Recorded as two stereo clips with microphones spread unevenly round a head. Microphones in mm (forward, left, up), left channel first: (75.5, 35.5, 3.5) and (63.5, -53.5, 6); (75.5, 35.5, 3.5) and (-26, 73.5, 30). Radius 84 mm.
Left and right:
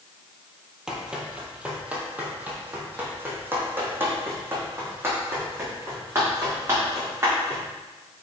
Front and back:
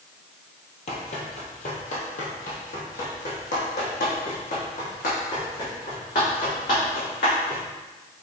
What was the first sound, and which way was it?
Running footsteps, 20° right.